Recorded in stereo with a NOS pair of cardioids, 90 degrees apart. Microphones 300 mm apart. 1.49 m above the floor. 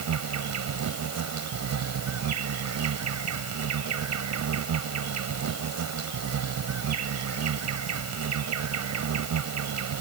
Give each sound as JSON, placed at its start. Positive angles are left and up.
{"t": 0.0, "sound": "an insect", "azimuth_deg": -60}